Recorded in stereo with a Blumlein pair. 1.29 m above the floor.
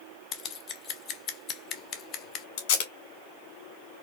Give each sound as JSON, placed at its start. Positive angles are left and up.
{"t": 0.3, "sound": "scissors", "azimuth_deg": 30, "distance_m": 0.6}
{"t": 2.6, "sound": "tape being pulled", "azimuth_deg": 45, "distance_m": 1.1}